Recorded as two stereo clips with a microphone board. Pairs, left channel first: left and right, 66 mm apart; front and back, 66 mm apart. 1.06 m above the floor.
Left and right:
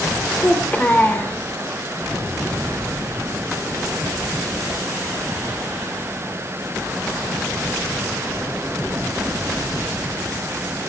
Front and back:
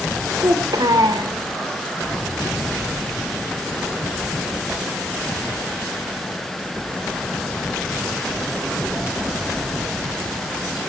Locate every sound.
0.4 s a child speaking: 160° left, 3 m